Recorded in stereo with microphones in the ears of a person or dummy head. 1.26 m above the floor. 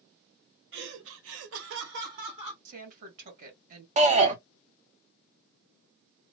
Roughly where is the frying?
I don't hear frying.